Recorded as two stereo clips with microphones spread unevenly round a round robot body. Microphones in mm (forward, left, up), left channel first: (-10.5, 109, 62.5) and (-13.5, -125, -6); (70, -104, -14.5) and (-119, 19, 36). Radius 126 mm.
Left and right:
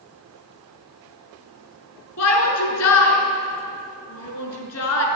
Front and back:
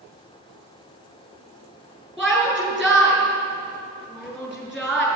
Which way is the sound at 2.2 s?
60° left.